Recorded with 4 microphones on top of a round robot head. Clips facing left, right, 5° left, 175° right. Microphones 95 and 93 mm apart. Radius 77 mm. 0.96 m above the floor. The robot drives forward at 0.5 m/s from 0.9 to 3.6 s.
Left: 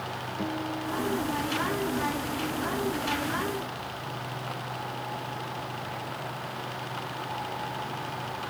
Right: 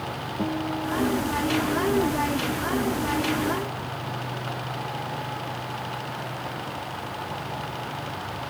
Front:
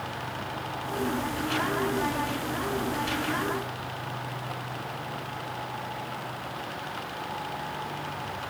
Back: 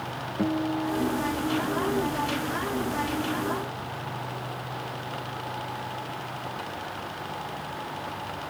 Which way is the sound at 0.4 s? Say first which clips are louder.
Right 5 dB, back 8 dB; 165° right.